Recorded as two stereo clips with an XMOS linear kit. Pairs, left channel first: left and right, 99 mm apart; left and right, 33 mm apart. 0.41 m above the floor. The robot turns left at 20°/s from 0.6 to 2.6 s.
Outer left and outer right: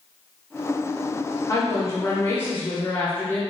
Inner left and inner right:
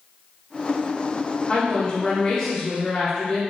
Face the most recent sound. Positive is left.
turn(degrees=20)  # may be behind; listen again after turning